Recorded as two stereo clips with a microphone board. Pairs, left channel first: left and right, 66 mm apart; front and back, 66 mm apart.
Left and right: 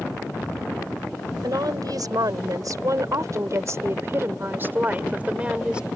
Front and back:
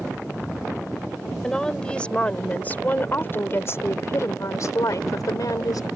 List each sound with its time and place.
1.4 s a woman speaking: 80° right; by 5.9 s 15° right